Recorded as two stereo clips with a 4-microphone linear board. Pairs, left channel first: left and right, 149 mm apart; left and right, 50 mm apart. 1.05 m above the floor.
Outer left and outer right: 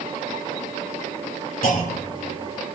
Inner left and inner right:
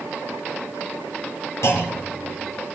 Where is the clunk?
75° left (ahead or behind), 2.5 m.